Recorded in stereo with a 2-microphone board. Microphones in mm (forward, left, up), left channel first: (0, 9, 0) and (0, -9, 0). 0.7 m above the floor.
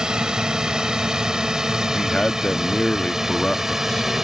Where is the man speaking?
55° left (ahead or behind).